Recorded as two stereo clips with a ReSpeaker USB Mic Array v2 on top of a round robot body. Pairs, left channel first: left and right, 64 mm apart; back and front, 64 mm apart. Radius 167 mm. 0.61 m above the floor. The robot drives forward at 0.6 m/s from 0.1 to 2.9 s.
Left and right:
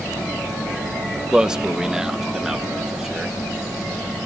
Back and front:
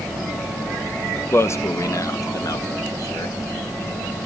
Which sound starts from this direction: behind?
A man speaking, at 1.3 s.